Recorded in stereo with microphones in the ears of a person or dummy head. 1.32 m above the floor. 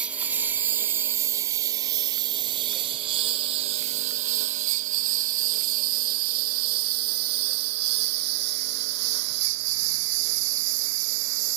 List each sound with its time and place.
0.0 s a lawn mower: centre (ahead or behind); by 11.6 s 65° right (ahead or behind)